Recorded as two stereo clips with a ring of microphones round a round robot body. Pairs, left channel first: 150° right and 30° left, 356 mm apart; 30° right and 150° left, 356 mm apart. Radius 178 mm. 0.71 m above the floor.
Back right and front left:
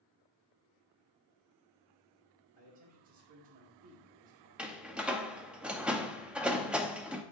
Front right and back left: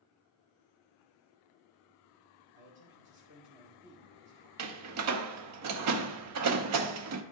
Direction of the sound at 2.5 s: 95° left.